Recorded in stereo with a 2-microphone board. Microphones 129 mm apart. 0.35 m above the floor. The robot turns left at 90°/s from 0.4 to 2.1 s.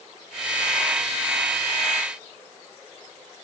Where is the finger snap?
No finger snap in this recording.